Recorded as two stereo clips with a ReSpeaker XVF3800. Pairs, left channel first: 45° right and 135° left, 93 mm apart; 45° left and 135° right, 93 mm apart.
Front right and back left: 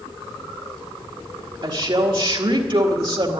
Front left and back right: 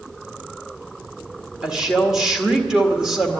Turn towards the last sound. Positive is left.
turn(degrees=140)